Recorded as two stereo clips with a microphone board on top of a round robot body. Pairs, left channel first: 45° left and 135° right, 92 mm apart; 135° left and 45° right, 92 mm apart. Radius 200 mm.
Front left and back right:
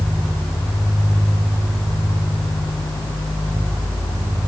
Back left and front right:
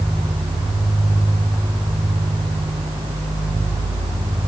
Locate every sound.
Only background noise.